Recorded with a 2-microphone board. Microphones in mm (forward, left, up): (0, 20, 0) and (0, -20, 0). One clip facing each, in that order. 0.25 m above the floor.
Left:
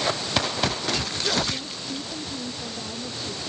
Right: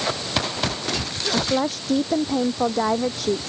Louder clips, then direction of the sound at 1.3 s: Right 6 dB; 75° right (ahead or behind).